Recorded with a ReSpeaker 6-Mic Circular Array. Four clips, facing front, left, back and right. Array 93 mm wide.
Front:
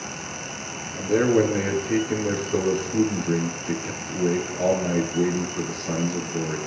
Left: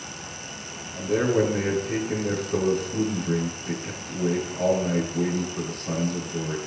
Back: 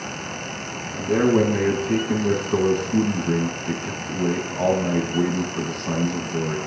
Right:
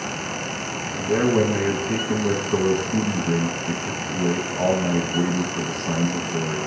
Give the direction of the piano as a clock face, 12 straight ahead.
No piano in this recording.